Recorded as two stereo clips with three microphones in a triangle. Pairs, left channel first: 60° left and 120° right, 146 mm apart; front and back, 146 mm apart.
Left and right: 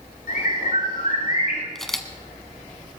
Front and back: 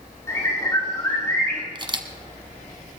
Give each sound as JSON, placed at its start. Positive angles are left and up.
{"t": 0.3, "sound": "a bird", "azimuth_deg": 70, "distance_m": 7.0}
{"t": 1.8, "sound": "a camera shutter", "azimuth_deg": 145, "distance_m": 1.1}